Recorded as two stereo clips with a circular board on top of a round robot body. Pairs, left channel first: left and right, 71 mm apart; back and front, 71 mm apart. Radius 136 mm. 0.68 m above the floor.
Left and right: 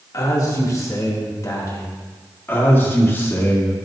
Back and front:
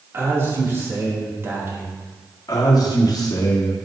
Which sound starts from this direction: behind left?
A man speaking, at 2.5 s.